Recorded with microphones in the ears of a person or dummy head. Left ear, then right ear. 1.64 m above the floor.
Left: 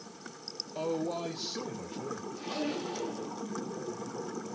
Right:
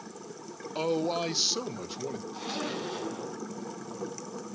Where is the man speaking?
55° right (ahead or behind), 1.6 m; by 2.2 s 75° right (ahead or behind), 2.5 m.